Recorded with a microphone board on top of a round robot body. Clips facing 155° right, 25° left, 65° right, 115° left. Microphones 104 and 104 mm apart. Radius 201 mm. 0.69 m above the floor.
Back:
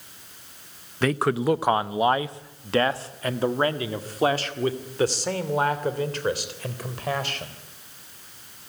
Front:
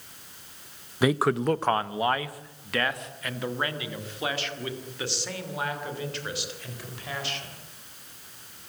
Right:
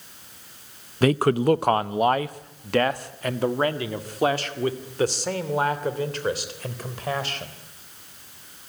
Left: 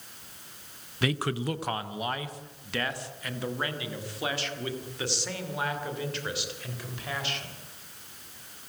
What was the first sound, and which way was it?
A man speaking, 50° right.